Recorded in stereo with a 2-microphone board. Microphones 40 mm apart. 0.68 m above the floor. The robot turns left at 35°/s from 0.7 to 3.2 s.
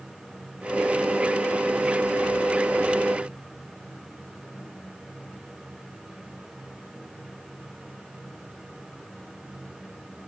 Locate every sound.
Only background noise.